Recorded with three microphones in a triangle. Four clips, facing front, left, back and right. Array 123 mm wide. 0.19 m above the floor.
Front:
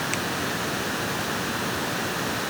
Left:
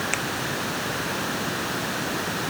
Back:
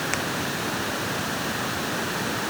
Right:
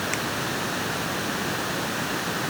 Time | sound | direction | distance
0.1 | a finger snap | 145° left | ?